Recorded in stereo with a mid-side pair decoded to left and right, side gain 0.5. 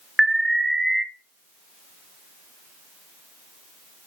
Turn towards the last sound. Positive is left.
turn(degrees=-15)